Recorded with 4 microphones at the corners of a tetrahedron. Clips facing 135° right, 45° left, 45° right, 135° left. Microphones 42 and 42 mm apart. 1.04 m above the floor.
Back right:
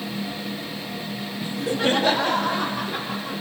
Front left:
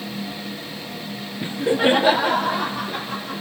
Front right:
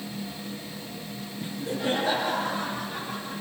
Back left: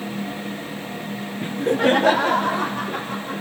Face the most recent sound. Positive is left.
turn(degrees=140)